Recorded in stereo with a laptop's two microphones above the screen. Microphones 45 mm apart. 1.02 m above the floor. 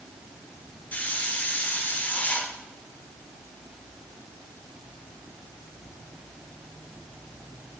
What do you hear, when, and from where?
0.9 s a hiss: 35° left (ahead or behind), 1.2 m